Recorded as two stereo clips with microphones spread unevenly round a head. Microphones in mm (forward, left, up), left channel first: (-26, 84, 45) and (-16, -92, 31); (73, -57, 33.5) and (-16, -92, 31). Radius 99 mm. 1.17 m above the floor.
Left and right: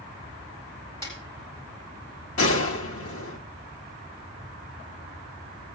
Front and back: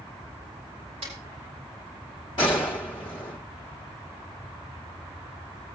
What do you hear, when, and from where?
1.0 s a snare drum: 165° left, 8 m
2.4 s a gunshot: 85° left, 1.8 m